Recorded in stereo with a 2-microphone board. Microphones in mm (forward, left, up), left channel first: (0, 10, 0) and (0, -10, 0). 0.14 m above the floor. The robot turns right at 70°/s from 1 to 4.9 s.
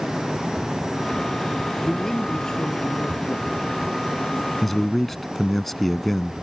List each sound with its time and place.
1.8 s a man speaking: straight ahead; by 3.5 s 120° left
4.6 s a man speaking: centre (ahead or behind); by 6.3 s 10° left (ahead or behind)